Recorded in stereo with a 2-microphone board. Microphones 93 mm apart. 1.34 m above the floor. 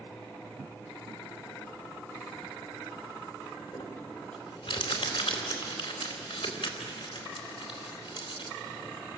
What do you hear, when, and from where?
3.7 s crumpling: 75° left (ahead or behind), 4 m